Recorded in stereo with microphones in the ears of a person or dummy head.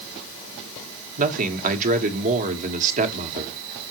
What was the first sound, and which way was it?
A man speaking, 45° right (ahead or behind).